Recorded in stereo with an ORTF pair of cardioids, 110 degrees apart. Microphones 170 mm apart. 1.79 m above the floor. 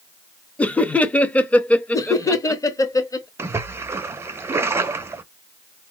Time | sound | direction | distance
0.6 | laughter | 10° left | 0.7 m
1.9 | laughter | 20° left | 0.9 m
3.4 | a splash | 15° right | 0.6 m